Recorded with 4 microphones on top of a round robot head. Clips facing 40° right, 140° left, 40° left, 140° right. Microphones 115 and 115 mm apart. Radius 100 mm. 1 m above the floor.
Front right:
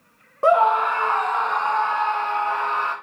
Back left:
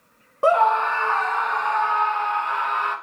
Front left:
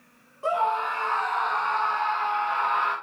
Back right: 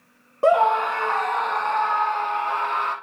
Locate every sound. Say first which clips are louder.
0.4 s a scream: front right 1 dB, back right 7 dB; 130° right, 0.9 m; by 3.0 s 95° right, 2.5 m